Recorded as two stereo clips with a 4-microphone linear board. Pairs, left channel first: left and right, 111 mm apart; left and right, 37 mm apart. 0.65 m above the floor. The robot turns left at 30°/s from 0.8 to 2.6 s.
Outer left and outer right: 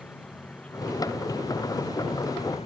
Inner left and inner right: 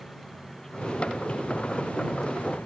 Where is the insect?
165° left; by 2.7 s 115° left.